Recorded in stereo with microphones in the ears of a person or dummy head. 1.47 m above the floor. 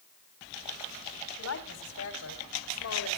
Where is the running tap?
No running tap in this recording.